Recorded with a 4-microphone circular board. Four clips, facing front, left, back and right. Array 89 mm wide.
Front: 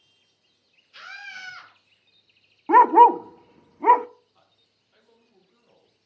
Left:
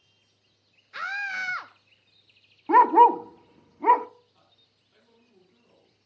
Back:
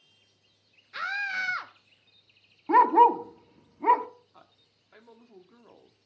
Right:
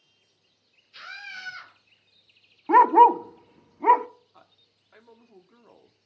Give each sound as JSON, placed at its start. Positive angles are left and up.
{"t": 0.9, "sound": "a scream", "azimuth_deg": 125, "distance_m": 1.4}
{"t": 2.7, "sound": "a dog barking", "azimuth_deg": -10, "distance_m": 0.5}
{"t": 4.3, "sound": "a man speaking", "azimuth_deg": -135, "distance_m": 2.5}